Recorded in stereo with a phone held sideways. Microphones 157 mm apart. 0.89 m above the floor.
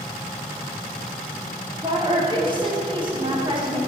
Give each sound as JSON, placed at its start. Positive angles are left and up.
{"t": 1.8, "sound": "a woman speaking", "side_deg": -30, "distance_m": 2.5}